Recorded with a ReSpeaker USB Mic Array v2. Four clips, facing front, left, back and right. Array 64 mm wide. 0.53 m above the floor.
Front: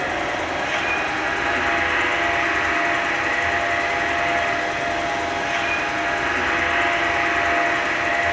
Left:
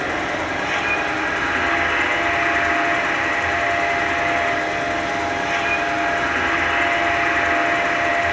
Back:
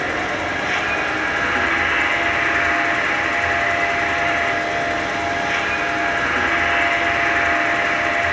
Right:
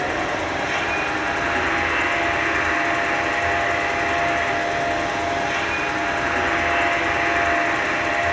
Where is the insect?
170° left, 6.5 m.